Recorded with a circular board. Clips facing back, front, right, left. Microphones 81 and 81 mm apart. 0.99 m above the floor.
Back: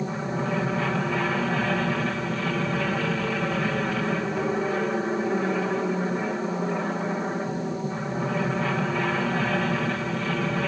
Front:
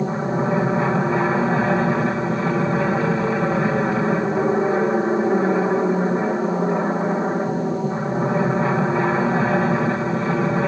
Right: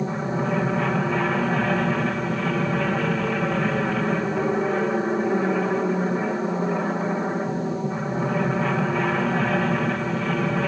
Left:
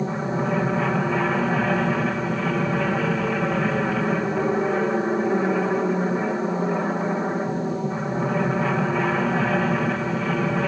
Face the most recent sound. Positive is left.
turn(degrees=10)